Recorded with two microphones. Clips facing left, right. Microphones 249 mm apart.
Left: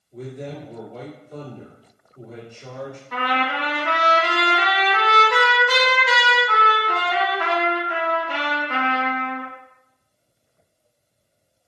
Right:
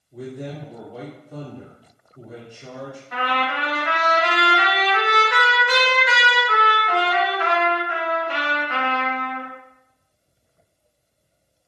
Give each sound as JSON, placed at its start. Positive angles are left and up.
{"t": 0.1, "sound": "a man speaking", "side_deg": -10, "distance_m": 1.6}
{"t": 3.1, "sound": "a trumpet", "side_deg": 50, "distance_m": 1.0}